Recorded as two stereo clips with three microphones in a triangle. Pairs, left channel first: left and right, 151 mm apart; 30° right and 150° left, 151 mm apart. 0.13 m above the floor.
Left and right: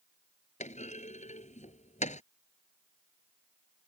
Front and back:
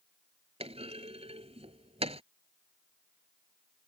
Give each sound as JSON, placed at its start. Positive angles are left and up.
{"t": 0.6, "sound": "a clunk", "azimuth_deg": 110}